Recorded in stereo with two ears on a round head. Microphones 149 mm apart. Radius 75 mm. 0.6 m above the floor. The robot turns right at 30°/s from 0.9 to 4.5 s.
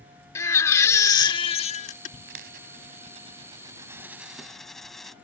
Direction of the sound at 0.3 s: 20° left.